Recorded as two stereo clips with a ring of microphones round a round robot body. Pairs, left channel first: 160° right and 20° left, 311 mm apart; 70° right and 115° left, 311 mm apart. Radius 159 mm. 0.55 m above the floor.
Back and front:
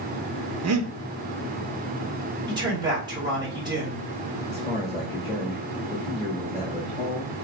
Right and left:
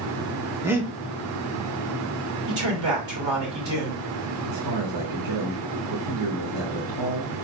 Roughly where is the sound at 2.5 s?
Left.